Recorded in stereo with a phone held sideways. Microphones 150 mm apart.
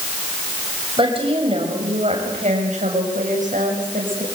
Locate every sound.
1.0 s a woman speaking: 35° right (ahead or behind), 7 m; by 4.2 s 65° right (ahead or behind), 8 m